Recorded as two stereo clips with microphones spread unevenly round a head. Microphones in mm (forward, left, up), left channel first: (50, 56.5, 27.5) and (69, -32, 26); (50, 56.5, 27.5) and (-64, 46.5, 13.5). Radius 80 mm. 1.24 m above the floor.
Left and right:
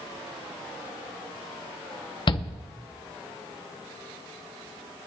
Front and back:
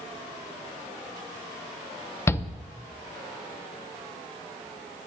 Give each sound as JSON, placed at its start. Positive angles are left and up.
{"t": 2.3, "sound": "a shout", "azimuth_deg": 75, "distance_m": 1.1}